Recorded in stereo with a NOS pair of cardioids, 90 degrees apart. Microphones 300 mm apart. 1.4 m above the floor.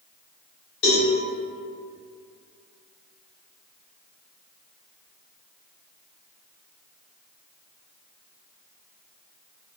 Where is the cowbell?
65° left, 1.3 m.